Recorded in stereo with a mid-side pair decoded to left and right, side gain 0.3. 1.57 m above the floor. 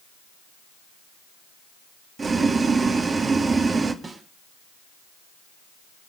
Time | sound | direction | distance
2.2 | boiling | 55° right | 2.5 m
4.0 | a snare drum | 60° right | 6 m